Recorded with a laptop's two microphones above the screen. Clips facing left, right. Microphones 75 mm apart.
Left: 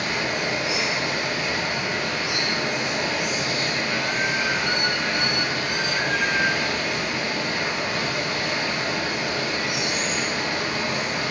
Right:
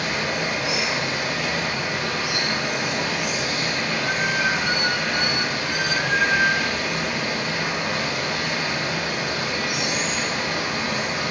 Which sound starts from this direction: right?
Running water, at 0.0 s.